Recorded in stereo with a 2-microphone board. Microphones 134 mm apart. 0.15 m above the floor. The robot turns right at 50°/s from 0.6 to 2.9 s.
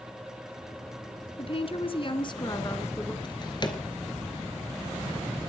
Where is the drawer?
35° left (ahead or behind), 1.7 m.